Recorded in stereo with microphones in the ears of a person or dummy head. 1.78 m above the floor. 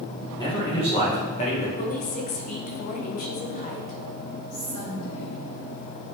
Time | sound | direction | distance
0.4 | a man speaking | 25° left (ahead or behind) | 2.5 m
1.8 | a woman speaking | 40° left (ahead or behind) | 1.3 m
4.5 | a woman speaking | 85° left | 2.5 m